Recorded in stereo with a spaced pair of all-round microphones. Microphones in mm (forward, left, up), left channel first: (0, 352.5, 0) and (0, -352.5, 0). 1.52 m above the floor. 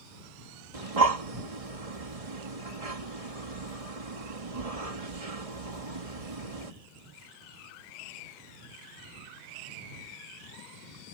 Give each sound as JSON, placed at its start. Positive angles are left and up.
{"t": 0.7, "sound": "breathing", "side_deg": -55}